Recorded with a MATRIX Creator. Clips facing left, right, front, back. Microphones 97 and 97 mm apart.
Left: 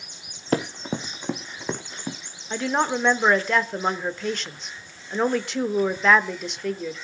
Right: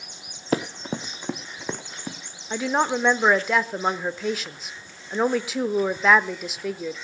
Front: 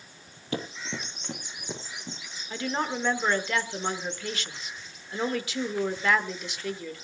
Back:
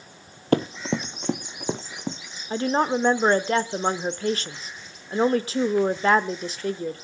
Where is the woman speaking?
175° right, 0.9 m.